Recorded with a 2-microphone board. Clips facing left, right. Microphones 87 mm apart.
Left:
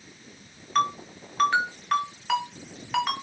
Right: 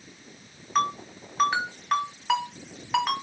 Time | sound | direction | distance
0.8 | a ringtone | 10° right (ahead or behind) | 2.5 m